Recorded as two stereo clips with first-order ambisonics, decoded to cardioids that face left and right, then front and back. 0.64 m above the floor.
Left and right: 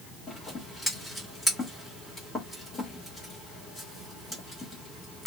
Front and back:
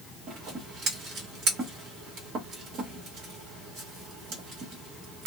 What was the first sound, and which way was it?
Scissors, 165° left.